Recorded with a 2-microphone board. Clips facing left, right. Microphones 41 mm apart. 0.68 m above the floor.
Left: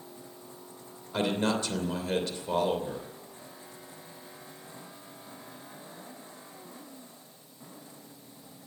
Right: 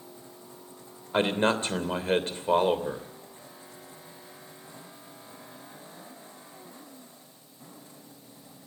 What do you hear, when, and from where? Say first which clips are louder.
1.1 s a man speaking: right 4 dB; 40° right (ahead or behind), 3 m